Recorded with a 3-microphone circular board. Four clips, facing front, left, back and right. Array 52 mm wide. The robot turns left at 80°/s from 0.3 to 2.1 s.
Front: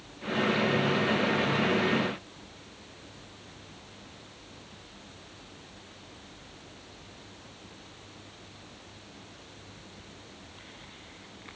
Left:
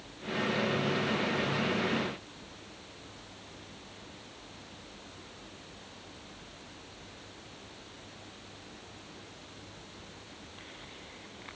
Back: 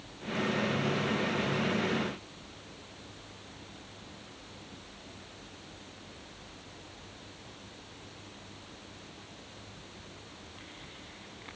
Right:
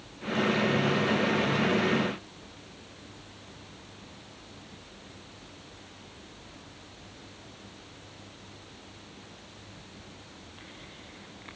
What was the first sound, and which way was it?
Only background noise.